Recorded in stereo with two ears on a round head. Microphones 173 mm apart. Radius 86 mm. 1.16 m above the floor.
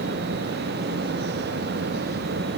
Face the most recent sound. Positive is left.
No sound to turn to.